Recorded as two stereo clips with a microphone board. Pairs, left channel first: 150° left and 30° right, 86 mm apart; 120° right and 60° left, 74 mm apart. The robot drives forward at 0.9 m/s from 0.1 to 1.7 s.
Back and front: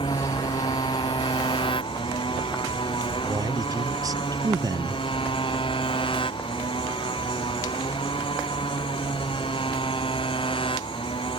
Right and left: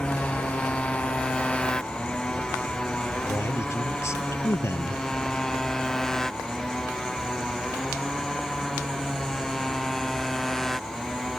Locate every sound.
0.0 s a motorcycle: 165° left; by 11.4 s 155° left
3.2 s a man speaking: 70° right